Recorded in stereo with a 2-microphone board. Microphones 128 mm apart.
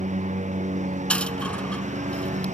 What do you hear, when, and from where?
0.0 s a lawn mower: 85° right
1.1 s a dropped coin: 10° left (ahead or behind)